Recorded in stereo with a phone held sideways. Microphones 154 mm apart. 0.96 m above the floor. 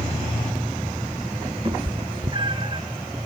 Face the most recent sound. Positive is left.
turn(degrees=-35)  # may be behind; listen again after turning